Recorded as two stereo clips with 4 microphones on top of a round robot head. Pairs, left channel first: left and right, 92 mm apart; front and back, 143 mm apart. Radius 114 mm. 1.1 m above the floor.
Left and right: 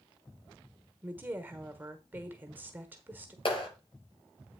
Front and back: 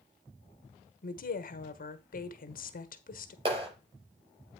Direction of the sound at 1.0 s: 20° right.